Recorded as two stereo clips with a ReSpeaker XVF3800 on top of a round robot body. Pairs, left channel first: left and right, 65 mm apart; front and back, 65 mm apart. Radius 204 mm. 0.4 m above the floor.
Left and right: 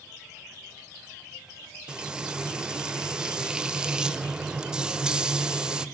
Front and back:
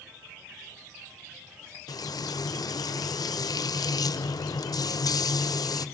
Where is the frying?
10° right, 1.3 m.